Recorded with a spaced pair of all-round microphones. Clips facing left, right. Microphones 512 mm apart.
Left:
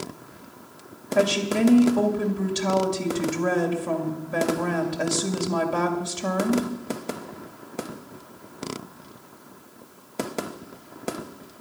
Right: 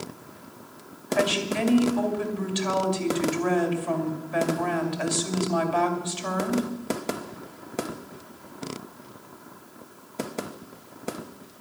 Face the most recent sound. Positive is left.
turn(degrees=60)  # may be behind; listen again after turning